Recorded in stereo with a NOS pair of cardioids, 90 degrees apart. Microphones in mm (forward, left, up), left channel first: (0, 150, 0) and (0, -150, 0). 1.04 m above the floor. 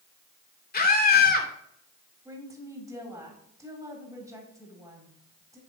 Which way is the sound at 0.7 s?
30° left.